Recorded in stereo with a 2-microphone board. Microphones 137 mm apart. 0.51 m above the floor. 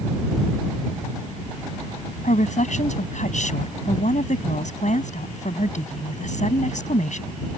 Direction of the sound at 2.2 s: 65° left (ahead or behind).